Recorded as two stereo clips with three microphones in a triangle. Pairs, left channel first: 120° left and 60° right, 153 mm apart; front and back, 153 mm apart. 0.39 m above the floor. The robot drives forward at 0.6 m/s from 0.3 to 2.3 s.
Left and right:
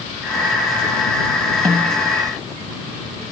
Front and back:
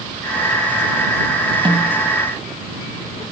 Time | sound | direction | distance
1.6 | a snare drum | 125° right | 2.5 m